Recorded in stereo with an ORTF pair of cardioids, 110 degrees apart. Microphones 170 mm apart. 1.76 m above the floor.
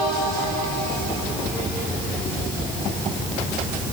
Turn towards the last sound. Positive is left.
No sound to turn to.